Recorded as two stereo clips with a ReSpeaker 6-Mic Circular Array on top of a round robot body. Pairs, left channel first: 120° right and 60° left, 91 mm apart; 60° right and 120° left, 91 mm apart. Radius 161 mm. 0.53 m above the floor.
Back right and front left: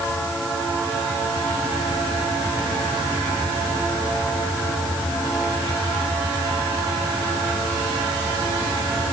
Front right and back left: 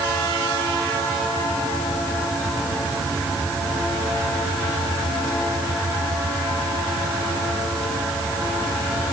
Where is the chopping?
No chopping in this recording.